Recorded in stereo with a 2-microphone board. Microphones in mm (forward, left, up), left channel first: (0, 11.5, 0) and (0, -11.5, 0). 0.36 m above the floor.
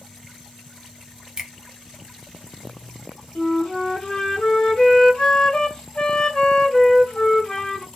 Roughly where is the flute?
Left.